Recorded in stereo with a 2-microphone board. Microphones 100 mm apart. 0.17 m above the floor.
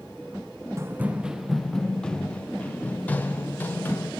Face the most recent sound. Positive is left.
turn(degrees=20)  # may be behind; listen again after turning